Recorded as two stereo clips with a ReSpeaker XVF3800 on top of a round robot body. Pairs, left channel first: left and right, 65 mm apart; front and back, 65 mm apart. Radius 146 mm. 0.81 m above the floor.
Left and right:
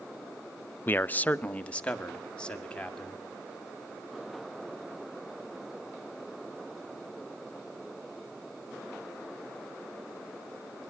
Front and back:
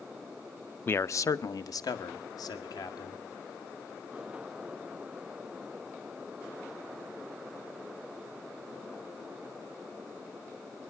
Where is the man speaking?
45° left, 0.5 m; by 3.2 s 15° left, 3 m.